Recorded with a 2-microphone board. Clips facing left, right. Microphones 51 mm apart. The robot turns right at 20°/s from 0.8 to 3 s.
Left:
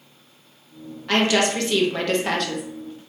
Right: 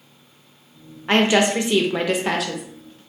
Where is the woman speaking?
35° right, 0.6 m; by 2.6 s 5° right, 0.6 m.